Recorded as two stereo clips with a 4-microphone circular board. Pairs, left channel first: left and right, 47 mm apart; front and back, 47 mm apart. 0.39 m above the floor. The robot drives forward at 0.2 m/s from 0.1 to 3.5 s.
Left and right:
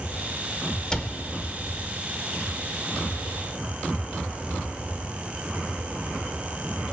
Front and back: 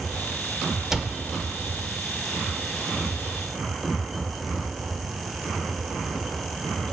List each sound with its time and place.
0.9 s a cupboard door: 120° left, 0.8 m; by 1.2 s 130° left, 0.8 m